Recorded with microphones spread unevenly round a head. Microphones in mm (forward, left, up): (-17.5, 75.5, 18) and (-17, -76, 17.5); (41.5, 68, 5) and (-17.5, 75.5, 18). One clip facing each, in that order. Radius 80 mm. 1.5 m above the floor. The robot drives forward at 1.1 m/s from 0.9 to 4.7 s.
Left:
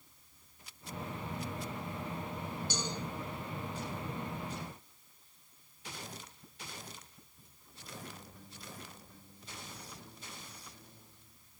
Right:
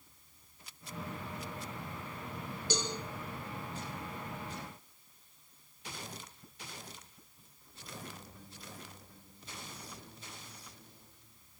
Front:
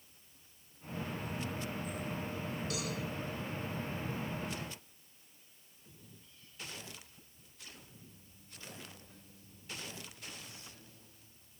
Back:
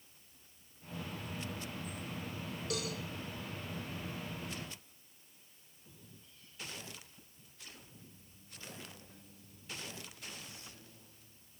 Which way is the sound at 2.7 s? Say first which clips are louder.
Right 6 dB, back 4 dB; 115° right.